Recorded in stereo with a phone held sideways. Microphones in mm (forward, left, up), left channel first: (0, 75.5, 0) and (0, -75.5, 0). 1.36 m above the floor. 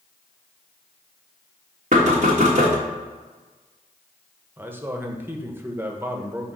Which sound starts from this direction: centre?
A man speaking, at 4.6 s.